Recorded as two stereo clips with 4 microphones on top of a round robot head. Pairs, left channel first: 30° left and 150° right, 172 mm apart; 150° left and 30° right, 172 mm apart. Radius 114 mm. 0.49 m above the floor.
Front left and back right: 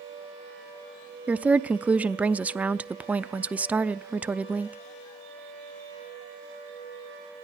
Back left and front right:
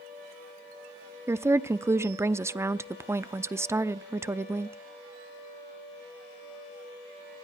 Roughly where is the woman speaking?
Right.